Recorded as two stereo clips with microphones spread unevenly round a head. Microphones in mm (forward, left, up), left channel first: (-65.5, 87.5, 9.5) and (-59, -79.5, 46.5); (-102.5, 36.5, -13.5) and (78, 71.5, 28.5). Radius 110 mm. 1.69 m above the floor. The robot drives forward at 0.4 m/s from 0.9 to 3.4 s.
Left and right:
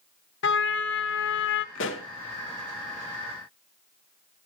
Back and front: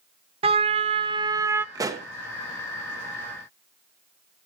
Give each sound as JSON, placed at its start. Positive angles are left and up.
{"t": 0.4, "sound": "a trumpet", "azimuth_deg": 70, "distance_m": 0.9}
{"t": 1.8, "sound": "a pop", "azimuth_deg": 75, "distance_m": 1.8}